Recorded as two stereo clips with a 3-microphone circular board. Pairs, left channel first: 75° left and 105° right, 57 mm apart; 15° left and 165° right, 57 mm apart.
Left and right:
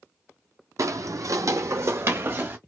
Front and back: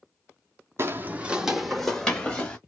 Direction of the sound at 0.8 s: 125° right.